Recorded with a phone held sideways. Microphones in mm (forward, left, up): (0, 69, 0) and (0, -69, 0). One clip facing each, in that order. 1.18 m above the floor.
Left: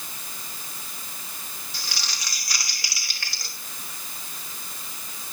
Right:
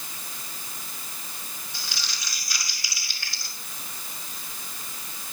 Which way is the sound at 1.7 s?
75° left (ahead or behind).